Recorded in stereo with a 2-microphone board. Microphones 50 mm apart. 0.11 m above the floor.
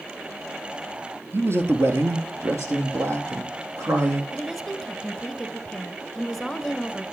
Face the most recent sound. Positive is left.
turn(degrees=0)  # may be behind; listen again after turning